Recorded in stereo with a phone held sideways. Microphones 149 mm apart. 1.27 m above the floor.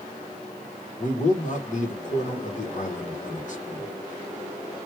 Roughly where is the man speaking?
Left.